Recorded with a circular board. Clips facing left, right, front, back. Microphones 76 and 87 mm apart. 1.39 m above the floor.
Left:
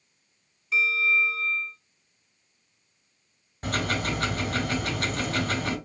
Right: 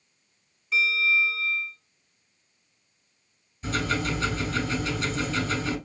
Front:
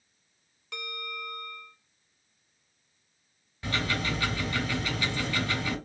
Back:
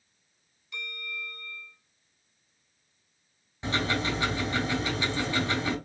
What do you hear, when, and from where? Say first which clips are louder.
0.7 s a bell: even, front 2 dB; straight ahead, 1.9 m
3.6 s ticking: right 1 dB, back 2 dB; 115° left, 3 m